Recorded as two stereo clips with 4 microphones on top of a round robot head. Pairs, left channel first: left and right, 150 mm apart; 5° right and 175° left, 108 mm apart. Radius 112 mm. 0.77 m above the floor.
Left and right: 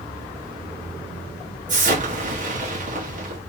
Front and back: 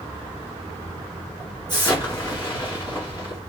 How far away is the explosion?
About 1.9 m.